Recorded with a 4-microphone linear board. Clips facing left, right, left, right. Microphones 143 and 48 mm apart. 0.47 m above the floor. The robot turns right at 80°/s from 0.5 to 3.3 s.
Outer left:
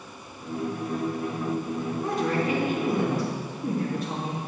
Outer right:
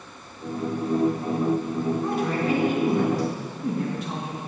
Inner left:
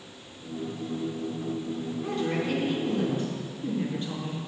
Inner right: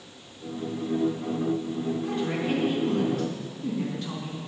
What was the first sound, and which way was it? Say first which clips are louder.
A woman speaking: outer right 1 dB, inner left 3 dB; 175° left.